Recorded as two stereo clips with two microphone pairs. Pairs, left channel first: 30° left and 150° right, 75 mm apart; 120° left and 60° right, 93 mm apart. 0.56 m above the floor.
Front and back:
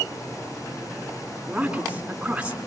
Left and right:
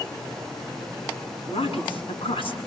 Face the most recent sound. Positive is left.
turn(degrees=130)